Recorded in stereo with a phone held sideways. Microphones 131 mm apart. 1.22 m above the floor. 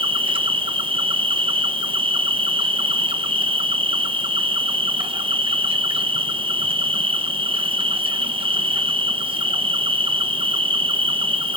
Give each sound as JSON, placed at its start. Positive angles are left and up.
{"t": 0.0, "sound": "an insect", "side_deg": -40, "distance_m": 0.9}